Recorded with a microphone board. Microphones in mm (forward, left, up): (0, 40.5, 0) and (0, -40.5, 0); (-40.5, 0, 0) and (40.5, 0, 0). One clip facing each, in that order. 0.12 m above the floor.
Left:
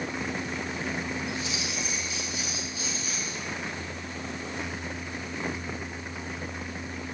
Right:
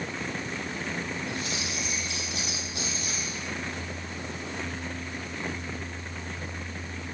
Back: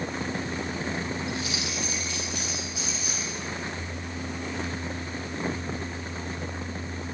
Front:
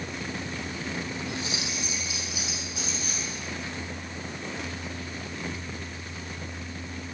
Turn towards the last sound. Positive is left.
turn(degrees=-100)